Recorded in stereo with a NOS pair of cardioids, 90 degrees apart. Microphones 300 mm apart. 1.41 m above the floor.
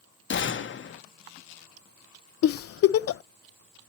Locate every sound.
0.3 s a gunshot: 40° left, 0.9 m
2.4 s a giggle: 50° left, 0.5 m